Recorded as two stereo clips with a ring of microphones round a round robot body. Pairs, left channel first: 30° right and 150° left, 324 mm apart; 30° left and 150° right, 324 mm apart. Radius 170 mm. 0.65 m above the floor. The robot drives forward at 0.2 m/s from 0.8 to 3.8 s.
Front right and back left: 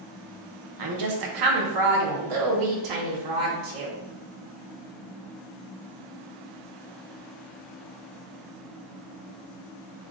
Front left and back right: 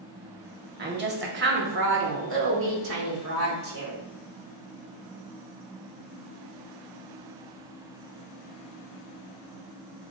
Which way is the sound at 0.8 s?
155° left.